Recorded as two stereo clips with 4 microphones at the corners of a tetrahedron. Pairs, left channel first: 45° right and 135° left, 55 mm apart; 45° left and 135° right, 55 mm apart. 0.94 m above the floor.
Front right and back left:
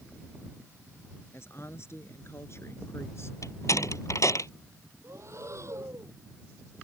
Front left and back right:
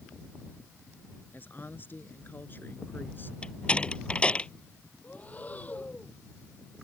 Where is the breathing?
105° left.